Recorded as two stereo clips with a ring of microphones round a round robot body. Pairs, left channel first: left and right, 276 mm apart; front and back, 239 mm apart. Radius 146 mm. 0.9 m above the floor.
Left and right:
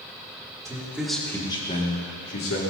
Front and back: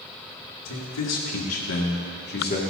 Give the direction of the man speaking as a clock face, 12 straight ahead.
12 o'clock.